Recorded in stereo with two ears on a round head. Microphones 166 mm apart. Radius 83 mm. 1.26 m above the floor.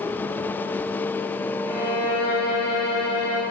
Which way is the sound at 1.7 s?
55° left (ahead or behind).